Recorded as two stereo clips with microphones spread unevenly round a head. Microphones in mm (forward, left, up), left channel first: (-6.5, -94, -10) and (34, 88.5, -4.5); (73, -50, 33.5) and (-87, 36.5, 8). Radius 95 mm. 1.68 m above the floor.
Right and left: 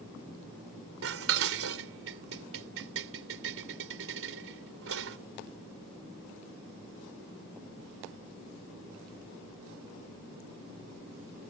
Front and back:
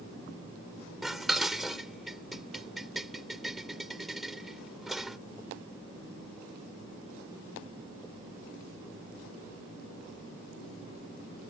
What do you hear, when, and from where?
1.0 s dishes clattering: 60° left